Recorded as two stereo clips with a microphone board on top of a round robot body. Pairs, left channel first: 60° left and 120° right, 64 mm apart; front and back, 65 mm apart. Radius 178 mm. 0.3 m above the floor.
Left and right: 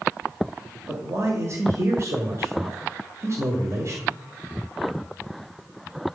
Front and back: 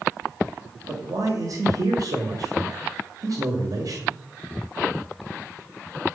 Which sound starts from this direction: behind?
A man speaking, at 0.9 s.